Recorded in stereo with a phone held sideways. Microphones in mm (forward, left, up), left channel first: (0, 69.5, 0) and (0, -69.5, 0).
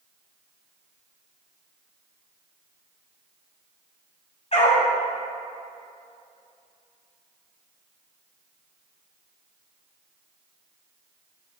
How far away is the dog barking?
About 2.5 m.